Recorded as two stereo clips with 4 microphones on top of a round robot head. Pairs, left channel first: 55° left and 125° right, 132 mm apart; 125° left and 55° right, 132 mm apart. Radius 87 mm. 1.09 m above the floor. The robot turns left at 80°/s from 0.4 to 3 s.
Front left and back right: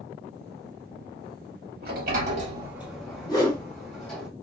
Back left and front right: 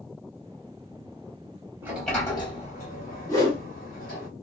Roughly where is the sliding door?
Behind right.